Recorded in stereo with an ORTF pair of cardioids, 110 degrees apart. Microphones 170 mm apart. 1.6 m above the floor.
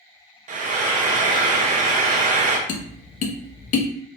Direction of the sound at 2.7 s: 55° left.